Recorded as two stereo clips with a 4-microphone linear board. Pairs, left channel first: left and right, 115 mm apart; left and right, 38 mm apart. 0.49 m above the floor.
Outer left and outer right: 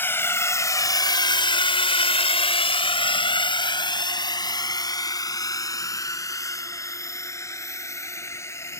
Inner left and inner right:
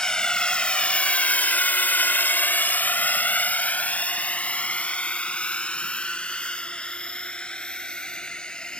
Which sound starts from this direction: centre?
A drone, at 0.0 s.